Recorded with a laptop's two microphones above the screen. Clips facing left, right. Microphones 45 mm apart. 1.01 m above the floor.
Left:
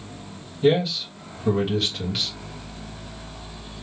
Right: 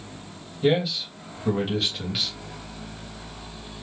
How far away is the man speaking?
About 1.2 m.